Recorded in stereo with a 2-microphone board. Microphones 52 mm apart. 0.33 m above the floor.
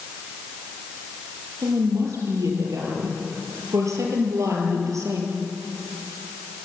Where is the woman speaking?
75° right (ahead or behind), 7 m.